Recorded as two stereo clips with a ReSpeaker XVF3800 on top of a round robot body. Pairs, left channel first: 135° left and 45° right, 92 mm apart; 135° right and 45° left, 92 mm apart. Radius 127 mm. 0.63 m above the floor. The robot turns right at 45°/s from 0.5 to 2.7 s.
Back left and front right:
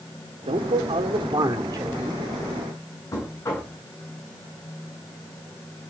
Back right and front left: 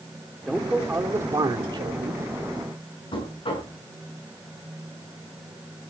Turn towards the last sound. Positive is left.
turn(degrees=-165)